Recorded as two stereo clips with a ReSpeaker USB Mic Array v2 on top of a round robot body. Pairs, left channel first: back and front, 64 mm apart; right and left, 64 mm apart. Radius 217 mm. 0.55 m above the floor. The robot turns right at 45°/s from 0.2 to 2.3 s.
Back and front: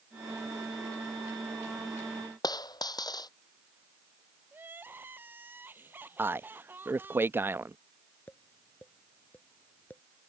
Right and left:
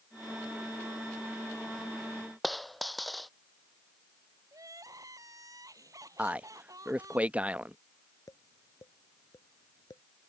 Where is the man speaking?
30° left.